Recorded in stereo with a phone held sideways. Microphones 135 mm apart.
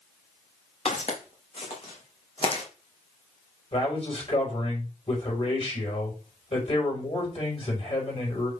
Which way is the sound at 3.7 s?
45° left (ahead or behind).